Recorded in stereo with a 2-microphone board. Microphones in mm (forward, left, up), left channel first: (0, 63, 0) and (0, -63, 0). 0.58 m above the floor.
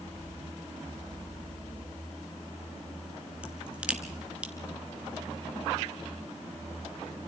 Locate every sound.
3.4 s a crack: 10° right (ahead or behind), 2.5 m